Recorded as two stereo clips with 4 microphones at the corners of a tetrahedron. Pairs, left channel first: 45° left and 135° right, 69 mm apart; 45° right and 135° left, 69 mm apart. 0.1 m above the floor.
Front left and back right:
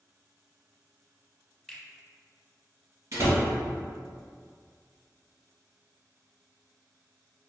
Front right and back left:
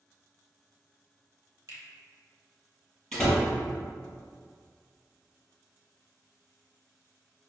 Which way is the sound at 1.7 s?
130° left.